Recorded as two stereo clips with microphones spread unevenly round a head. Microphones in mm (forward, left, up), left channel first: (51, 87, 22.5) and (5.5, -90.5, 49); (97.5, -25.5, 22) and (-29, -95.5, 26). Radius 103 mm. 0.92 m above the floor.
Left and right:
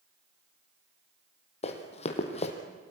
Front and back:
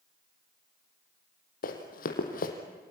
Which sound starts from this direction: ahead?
Running footsteps, at 1.6 s.